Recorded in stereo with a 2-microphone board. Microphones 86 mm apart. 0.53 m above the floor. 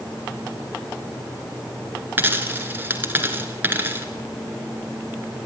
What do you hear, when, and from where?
2.2 s a dropped coin: 25° right (ahead or behind), 2.0 m